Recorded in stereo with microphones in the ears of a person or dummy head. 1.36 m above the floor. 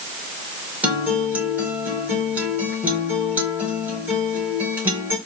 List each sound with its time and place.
0.8 s a guitar: 10° right (ahead or behind), 1.9 m